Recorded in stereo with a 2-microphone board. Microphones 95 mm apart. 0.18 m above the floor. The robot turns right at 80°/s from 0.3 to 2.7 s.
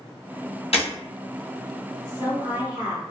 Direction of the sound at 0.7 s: 80° left.